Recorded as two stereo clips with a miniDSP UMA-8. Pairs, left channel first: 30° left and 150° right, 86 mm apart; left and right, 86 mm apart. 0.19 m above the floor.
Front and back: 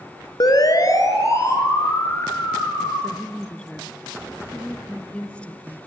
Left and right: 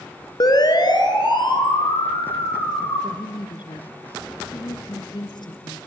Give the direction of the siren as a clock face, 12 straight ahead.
10 o'clock.